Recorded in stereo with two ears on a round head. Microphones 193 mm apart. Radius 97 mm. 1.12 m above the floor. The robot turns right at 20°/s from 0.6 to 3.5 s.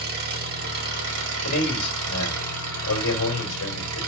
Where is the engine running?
135° right, 1.7 m; by 4.1 s 75° right, 1.7 m.